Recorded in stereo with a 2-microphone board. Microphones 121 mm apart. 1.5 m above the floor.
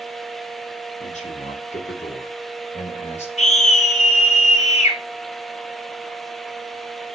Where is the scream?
80° left, 5.5 m.